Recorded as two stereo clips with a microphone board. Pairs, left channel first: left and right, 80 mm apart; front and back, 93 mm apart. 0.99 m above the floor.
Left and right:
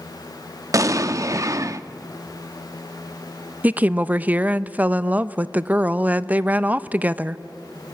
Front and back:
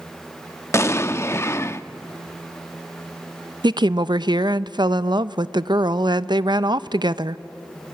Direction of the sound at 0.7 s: 55° right.